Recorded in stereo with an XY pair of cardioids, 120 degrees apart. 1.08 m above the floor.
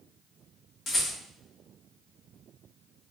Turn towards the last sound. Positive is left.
turn(degrees=55)